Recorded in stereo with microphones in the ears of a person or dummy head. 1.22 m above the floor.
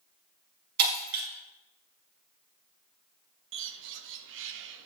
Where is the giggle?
No giggle in this recording.